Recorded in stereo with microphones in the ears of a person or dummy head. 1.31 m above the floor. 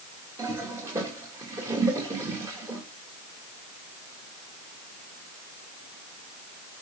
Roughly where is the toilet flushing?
Centre.